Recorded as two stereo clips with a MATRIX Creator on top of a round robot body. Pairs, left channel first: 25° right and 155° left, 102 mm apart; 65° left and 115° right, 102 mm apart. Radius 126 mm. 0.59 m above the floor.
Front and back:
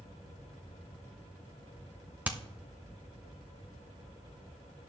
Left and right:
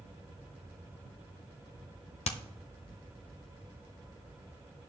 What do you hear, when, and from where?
2.2 s hammering: 80° left, 0.8 m